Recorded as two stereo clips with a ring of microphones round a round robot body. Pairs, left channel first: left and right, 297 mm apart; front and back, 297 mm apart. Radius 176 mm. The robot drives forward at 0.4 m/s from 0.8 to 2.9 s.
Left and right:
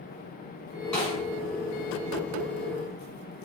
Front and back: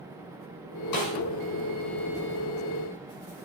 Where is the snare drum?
Straight ahead, 1.9 m.